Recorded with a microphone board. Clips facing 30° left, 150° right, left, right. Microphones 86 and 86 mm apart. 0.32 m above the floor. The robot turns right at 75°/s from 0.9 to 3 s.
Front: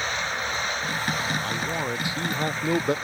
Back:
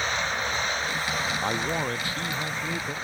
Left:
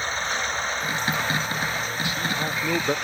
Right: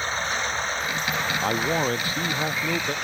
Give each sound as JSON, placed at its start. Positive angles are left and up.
{"t": 1.4, "sound": "a man speaking", "azimuth_deg": -90}